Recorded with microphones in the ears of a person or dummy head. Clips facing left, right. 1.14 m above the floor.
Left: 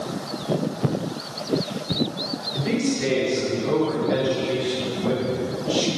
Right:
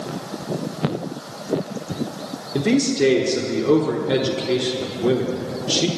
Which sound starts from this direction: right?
A man speaking, at 2.5 s.